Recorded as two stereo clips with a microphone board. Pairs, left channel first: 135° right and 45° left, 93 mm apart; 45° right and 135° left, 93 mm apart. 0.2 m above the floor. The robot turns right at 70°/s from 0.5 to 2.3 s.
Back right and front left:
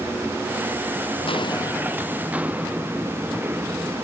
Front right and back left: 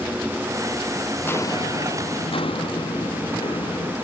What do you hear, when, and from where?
1.2 s footsteps: 115° right; by 4.0 s 20° right